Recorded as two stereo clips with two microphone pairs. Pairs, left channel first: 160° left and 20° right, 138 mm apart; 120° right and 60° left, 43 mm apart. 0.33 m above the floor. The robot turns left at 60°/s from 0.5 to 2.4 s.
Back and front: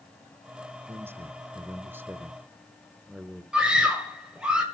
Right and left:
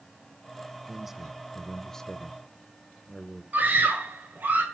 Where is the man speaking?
10° left, 0.8 m; by 3.4 s 80° right, 0.8 m.